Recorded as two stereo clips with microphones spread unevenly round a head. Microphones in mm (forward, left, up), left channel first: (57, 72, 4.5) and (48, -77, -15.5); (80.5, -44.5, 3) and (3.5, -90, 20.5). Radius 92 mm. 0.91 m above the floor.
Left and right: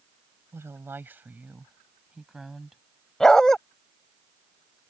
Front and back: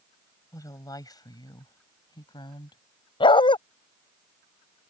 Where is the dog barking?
Straight ahead.